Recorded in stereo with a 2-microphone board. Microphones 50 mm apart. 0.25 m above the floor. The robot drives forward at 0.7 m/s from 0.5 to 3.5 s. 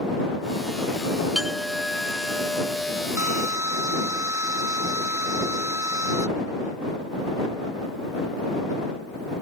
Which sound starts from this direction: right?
A drill, at 3.2 s.